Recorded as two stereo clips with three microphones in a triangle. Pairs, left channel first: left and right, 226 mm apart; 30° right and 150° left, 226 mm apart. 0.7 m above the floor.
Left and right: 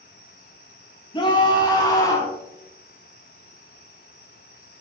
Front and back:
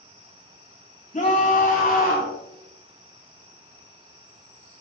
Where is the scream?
25° left, 5 m; by 2.3 s 15° left, 6 m.